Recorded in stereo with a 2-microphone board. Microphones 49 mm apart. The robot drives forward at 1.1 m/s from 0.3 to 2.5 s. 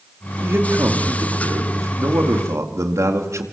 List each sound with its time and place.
0.4 s a man speaking: 55° right (ahead or behind), 5 m; by 3.4 s 85° right, 4 m